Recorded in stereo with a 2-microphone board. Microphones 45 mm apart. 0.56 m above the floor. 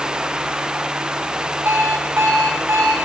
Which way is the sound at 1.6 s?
85° right.